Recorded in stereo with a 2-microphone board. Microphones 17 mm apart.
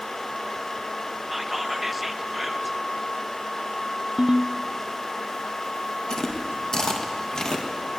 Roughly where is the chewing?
Left.